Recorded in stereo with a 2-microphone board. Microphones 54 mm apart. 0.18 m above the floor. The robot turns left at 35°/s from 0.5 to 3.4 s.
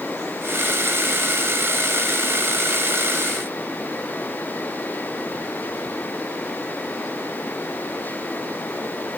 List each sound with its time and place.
Only background noise.